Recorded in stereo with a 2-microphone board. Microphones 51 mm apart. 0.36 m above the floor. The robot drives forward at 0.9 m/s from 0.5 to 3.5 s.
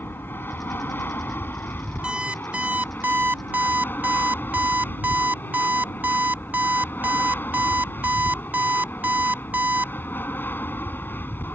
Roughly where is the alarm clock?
Centre.